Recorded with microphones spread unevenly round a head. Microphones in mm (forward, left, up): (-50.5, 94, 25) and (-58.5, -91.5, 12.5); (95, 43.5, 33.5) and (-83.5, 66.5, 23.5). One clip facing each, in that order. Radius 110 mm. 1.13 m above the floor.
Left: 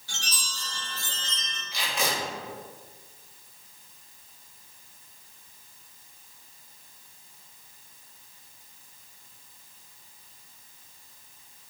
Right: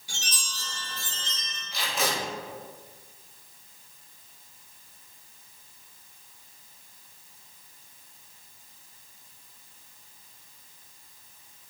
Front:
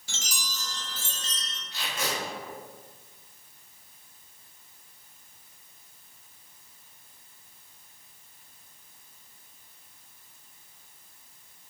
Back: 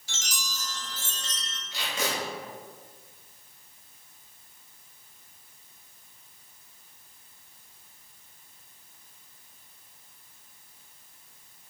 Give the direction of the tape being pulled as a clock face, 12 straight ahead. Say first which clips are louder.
Right 1 dB, back 2 dB; 6 o'clock.